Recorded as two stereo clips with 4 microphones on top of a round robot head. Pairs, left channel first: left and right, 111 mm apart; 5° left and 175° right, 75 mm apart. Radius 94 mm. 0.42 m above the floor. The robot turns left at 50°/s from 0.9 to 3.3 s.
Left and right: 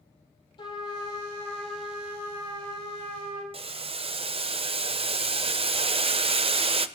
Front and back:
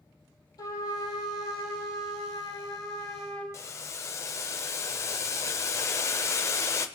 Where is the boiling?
50° right, 0.8 m.